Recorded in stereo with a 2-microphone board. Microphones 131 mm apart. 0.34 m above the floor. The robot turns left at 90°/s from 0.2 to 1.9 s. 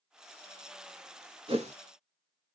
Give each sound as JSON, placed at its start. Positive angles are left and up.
{"t": 1.5, "sound": "a whoosh", "side_deg": -45, "distance_m": 0.7}